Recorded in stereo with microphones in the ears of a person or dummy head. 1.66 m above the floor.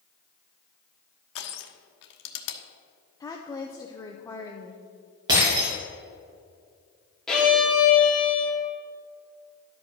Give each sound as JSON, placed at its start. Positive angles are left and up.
{"t": 1.4, "sound": "crushing", "side_deg": 75, "distance_m": 1.1}
{"t": 3.2, "sound": "a woman speaking", "side_deg": 15, "distance_m": 0.7}
{"t": 5.3, "sound": "breaking glass", "side_deg": -25, "distance_m": 4.0}
{"t": 7.3, "sound": "a violin", "side_deg": 0, "distance_m": 2.0}